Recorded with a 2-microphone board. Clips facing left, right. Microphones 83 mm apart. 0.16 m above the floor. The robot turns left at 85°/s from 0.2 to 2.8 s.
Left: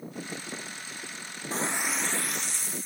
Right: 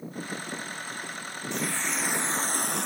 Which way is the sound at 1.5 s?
40° left.